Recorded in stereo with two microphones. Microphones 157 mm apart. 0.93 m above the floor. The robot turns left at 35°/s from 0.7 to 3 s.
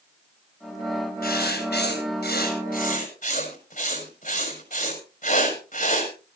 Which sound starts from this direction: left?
Writing, at 1.2 s.